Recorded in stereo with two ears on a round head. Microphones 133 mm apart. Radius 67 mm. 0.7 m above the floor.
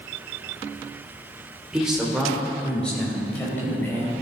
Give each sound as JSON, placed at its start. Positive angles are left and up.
{"t": 1.7, "sound": "a man speaking", "side_deg": -5, "distance_m": 2.0}